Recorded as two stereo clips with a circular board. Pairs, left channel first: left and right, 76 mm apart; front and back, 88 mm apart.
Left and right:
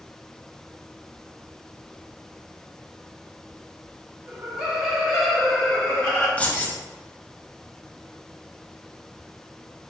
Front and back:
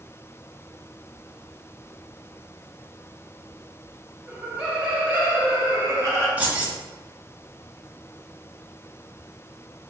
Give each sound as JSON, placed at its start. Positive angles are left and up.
{"t": 4.3, "sound": "laughter", "azimuth_deg": -115, "distance_m": 1.3}
{"t": 6.4, "sound": "keys jangling", "azimuth_deg": 135, "distance_m": 0.7}